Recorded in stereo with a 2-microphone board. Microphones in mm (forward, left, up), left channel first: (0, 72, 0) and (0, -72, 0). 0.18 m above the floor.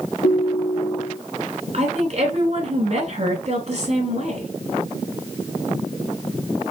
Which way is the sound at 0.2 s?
75° left (ahead or behind).